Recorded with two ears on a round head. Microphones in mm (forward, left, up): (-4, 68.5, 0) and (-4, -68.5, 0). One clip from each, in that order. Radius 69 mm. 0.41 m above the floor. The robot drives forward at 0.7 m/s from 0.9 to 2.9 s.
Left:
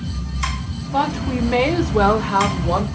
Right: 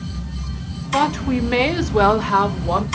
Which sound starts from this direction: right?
A woman speaking, at 0.9 s.